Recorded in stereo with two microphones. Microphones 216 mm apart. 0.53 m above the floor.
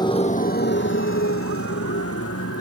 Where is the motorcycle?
20° left (ahead or behind); by 2.6 s 85° left.